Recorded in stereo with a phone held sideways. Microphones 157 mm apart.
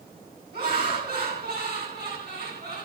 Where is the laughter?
85° right, 5 m.